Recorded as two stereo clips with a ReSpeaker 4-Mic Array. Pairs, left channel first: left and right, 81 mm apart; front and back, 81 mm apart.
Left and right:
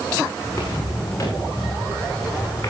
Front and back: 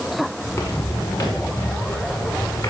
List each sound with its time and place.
0.4 s footsteps: 45° left, 7.5 m; by 2.7 s 30° left, 7 m